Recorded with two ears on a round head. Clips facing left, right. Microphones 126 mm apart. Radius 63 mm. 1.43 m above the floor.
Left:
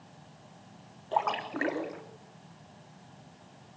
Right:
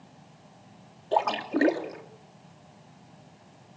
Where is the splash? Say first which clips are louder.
Right 5 dB; 40° right (ahead or behind), 3 m.